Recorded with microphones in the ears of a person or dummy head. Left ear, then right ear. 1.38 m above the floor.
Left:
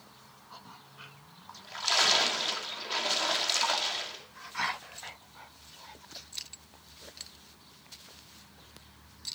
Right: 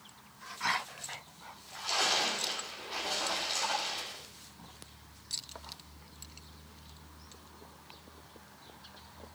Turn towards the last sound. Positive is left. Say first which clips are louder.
# left 6 dB
turn(degrees=60)  # may be behind; listen again after turning